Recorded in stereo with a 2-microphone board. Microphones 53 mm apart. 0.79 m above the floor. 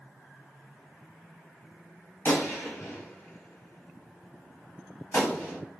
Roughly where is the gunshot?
Left.